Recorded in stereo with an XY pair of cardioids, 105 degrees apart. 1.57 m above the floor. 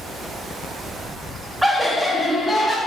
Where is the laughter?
10° right, 1.1 m; by 2.8 s 20° left, 1.3 m.